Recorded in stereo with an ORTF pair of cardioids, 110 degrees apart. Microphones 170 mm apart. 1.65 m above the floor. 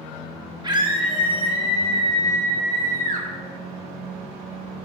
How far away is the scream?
About 4.5 m.